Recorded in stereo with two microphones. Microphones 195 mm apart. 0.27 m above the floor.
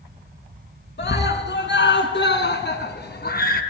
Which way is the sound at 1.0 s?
65° left (ahead or behind).